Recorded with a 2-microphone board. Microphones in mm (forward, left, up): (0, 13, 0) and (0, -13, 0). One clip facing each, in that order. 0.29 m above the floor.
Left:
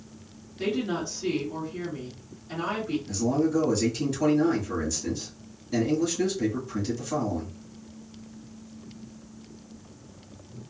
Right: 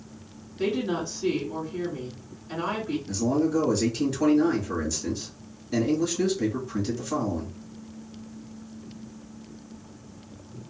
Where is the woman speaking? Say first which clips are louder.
Right 1 dB; 5° right (ahead or behind), 2 m.